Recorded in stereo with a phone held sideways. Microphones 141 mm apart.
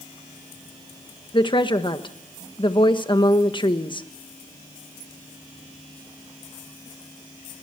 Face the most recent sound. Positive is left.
turn(degrees=35)  # may be behind; listen again after turning